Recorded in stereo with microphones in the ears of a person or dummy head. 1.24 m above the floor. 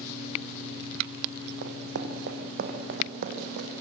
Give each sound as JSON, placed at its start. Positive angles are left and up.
{"t": 1.6, "sound": "running footsteps", "side_deg": -60, "distance_m": 3.0}